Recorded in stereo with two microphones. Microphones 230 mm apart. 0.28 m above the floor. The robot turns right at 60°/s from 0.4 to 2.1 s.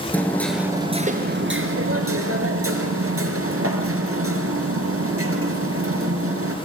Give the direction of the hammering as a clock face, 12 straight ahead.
6 o'clock.